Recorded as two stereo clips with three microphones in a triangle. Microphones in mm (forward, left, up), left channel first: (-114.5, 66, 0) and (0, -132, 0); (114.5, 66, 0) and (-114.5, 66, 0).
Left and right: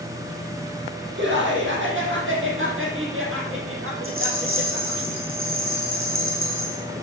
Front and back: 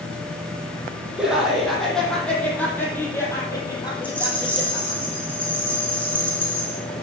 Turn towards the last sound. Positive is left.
turn(degrees=-85)